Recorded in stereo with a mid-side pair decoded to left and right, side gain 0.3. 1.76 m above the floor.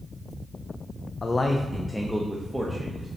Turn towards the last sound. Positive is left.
turn(degrees=-15)